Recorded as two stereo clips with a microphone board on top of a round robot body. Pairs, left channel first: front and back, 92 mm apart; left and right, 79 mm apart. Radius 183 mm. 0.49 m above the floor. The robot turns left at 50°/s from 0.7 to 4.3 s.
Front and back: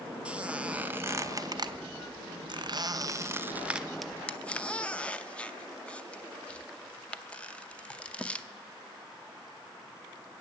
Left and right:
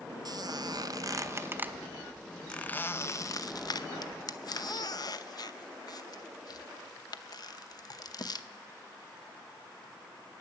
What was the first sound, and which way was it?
A squeak, 105° right.